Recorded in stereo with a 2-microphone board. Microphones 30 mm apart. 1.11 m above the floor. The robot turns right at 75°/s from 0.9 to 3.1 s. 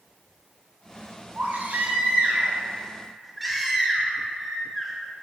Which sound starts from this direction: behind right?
A baby crying, at 1.4 s.